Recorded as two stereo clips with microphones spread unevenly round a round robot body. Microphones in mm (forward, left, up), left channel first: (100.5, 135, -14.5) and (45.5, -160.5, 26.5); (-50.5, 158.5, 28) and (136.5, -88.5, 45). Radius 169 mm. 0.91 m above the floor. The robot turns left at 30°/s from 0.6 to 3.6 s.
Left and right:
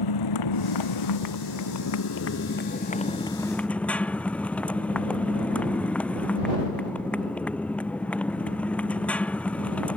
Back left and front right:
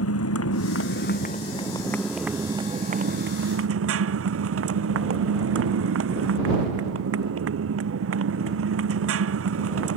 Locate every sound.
0.0 s a motorcycle: 85° left; by 10.0 s 5° right